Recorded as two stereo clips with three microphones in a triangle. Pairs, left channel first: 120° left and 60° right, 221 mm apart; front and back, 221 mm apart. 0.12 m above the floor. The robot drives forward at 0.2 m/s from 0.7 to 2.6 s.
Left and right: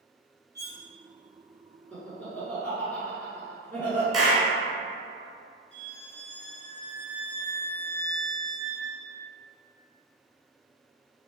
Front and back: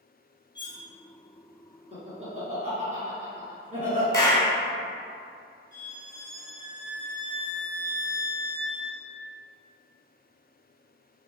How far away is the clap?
About 0.9 m.